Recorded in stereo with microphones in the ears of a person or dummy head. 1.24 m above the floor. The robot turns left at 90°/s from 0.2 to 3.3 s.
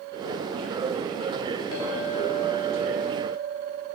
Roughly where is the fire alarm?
I don't hear a fire alarm.